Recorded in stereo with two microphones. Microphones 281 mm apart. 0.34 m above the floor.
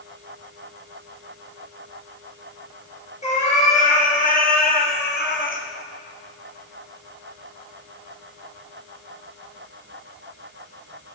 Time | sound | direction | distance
3.2 | a cat meowing | 25° left (ahead or behind) | 2.5 m